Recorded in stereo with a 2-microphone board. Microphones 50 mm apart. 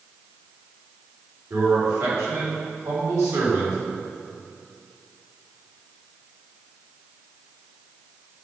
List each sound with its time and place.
1.5 s a man speaking: 75° right (ahead or behind), 4.5 m